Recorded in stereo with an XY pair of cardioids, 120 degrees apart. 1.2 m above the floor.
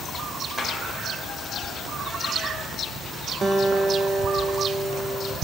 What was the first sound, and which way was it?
A clap, 10° right.